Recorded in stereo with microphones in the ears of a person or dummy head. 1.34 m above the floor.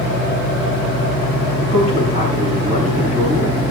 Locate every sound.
1.6 s a man speaking: 35° right (ahead or behind), 3.5 m